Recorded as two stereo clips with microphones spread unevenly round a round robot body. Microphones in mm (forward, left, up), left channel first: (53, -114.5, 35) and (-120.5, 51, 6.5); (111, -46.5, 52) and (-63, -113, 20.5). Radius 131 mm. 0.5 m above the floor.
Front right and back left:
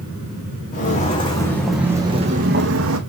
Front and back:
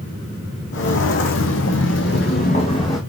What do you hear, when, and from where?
0.7 s footsteps: 15° left, 1.7 m; by 3.0 s 95° left, 1.4 m